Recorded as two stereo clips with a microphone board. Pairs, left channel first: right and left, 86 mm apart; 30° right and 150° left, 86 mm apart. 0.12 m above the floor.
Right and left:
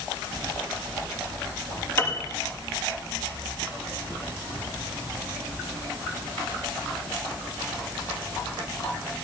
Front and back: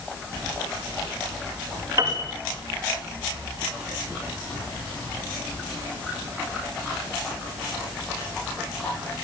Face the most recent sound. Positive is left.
turn(degrees=-155)